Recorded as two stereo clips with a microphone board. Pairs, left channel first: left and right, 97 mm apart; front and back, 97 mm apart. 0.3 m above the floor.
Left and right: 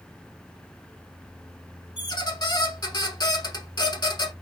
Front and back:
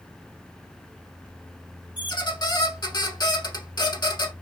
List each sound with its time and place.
2.0 s a squeak: 45° left, 0.7 m